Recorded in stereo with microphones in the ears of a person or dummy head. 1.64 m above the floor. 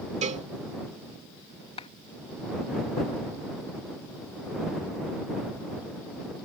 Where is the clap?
30° left (ahead or behind).